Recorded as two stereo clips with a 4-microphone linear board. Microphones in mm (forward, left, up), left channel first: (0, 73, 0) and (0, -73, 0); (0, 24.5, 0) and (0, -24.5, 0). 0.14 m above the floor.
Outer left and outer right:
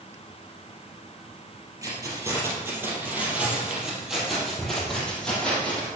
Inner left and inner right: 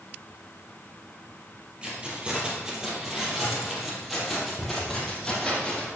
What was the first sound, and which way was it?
Keys jangling, 25° right (ahead or behind).